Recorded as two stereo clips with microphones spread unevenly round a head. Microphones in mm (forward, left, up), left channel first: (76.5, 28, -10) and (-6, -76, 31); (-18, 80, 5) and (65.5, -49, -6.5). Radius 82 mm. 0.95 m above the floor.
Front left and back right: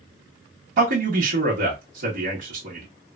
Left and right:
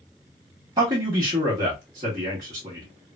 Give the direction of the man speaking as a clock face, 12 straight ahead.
4 o'clock.